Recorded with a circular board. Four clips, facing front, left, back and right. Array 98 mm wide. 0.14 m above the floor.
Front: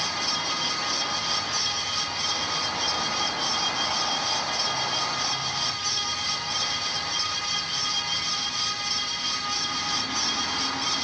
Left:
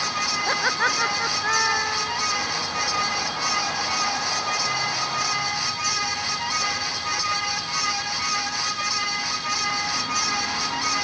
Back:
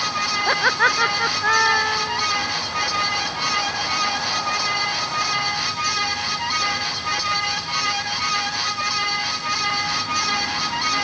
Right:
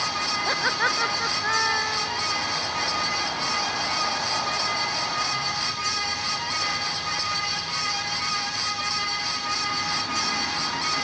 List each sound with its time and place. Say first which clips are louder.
0.5 s laughter: left 2 dB, back 11 dB; 175° left